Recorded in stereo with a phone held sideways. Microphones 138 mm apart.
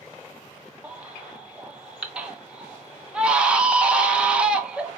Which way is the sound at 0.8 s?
5° right (ahead or behind).